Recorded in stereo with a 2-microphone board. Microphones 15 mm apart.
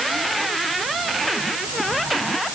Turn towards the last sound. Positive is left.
No sound to turn to.